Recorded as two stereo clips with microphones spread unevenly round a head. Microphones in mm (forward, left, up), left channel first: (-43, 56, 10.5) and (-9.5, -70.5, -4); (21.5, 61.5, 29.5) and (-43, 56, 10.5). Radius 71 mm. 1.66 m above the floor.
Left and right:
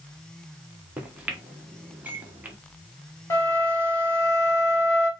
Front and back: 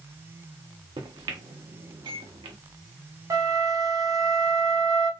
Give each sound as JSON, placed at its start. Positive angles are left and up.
{"t": 1.0, "sound": "a microwave", "azimuth_deg": -155, "distance_m": 1.1}
{"t": 3.3, "sound": "a flute", "azimuth_deg": 155, "distance_m": 1.7}